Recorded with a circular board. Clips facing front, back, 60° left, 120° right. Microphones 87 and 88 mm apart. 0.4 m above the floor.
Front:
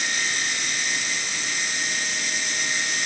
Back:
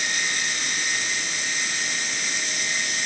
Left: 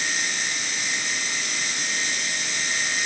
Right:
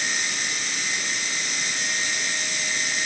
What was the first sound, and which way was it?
Only background noise.